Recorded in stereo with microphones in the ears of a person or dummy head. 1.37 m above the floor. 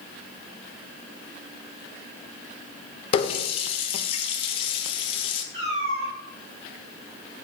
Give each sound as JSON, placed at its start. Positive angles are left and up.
{"t": 3.1, "sound": "a running tap", "side_deg": 40, "distance_m": 0.6}
{"t": 5.5, "sound": "a cat meowing", "side_deg": -40, "distance_m": 3.5}